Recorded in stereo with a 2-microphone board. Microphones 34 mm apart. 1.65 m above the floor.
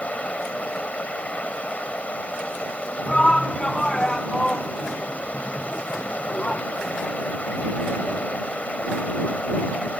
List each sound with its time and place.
0.0 s running water: 40° left (ahead or behind)
3.1 s a shout: 20° left (ahead or behind)